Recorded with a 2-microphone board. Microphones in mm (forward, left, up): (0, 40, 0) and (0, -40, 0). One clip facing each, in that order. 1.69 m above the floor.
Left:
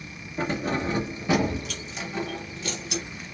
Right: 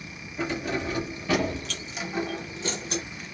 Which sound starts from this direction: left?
Keys jangling, at 0.4 s.